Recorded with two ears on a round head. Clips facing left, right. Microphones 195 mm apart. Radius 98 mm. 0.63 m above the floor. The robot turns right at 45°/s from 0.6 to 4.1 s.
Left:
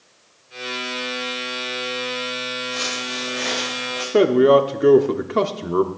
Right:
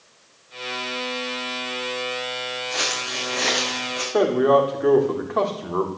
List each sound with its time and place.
2.7 s footsteps: 80° right, 4 m; by 4.0 s 35° right (ahead or behind), 3.5 m
4.1 s a man speaking: 40° left (ahead or behind), 1.1 m